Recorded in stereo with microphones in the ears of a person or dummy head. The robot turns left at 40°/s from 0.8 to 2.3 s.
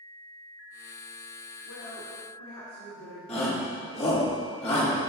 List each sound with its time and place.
1.6 s a woman speaking: 70° left (ahead or behind), 1.7 m; by 4.3 s 75° left (ahead or behind), 1.7 m
3.3 s a shout: 35° left (ahead or behind), 2.5 m